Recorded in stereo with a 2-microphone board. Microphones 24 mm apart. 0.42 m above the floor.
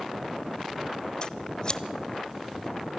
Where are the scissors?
40° left (ahead or behind), 0.9 m.